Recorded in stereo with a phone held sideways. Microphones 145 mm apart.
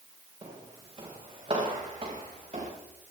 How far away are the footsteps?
About 5 m.